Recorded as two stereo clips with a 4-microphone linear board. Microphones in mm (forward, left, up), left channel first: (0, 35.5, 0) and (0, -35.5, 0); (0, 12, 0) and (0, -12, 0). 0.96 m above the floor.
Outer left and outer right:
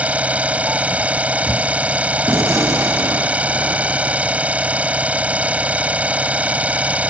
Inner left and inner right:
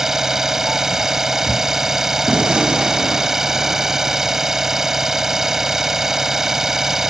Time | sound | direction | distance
0.0 | an engine running | 20° right (ahead or behind) | ?
2.3 | a gunshot | 45° right (ahead or behind) | ?